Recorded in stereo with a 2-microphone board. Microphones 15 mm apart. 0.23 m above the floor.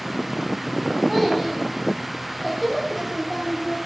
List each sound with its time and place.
1.1 s a child speaking: centre (ahead or behind), 7 m; by 3.8 s 20° left (ahead or behind), 5.5 m